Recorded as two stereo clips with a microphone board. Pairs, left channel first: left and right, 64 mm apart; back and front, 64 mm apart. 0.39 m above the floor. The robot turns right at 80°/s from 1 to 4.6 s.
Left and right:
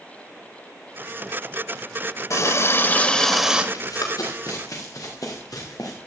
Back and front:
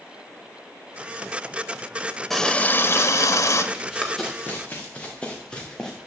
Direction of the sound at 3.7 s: 70° left.